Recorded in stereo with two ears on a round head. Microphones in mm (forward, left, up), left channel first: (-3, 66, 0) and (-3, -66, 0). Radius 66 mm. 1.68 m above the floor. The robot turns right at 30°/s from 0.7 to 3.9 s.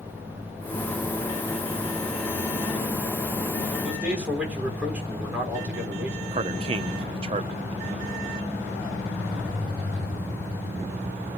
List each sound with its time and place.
3.8 s a man speaking: 10° right (ahead or behind), 6.5 m
6.3 s a man speaking: 40° right (ahead or behind), 1.2 m